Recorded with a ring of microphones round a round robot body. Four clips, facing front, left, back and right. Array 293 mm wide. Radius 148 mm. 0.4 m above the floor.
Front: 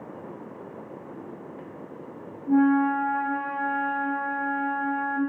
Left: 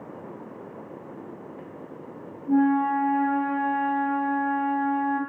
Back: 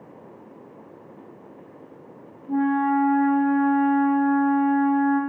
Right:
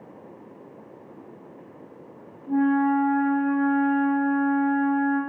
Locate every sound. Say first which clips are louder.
2.5 s a flute: even, front 1 dB; 25° left, 0.6 m